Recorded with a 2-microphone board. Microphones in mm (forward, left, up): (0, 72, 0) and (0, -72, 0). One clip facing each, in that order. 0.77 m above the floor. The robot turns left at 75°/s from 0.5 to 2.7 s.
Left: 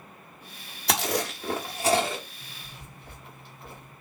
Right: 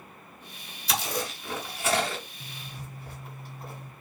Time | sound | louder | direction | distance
0.9 | chewing | left 4 dB | 65° left (ahead or behind) | 1.2 m
2.4 | a zipper | right 4 dB | 65° right (ahead or behind) | 1.5 m